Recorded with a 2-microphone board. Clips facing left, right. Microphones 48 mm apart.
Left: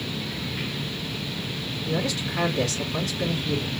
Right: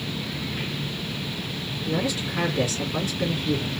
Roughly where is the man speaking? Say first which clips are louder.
Right 1 dB; centre.